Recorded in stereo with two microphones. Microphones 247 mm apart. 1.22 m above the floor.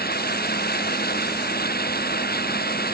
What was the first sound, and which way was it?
Running water, 40° left (ahead or behind).